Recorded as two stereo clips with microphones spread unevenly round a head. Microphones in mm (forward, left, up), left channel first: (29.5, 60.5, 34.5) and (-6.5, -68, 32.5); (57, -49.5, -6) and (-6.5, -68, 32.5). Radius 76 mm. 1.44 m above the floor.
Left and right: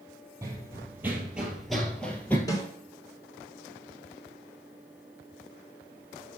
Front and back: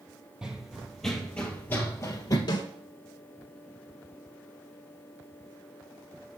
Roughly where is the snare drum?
Ahead.